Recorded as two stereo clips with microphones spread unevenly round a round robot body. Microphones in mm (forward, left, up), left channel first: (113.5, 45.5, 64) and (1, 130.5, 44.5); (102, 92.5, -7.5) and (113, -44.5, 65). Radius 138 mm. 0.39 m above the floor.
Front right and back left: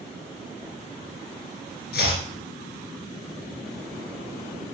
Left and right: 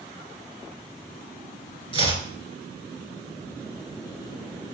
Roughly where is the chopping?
Ahead right.